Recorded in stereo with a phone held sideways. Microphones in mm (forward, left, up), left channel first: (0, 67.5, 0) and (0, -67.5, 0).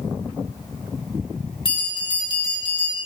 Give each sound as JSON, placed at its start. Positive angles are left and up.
{"t": 1.6, "sound": "a bell", "side_deg": 35, "distance_m": 4.0}